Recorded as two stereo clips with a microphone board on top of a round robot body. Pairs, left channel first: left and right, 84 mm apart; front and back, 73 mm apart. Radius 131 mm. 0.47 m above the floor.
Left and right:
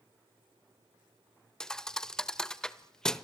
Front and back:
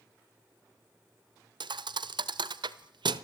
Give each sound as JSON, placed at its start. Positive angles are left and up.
{"t": 1.6, "sound": "a thud", "azimuth_deg": 175, "distance_m": 0.8}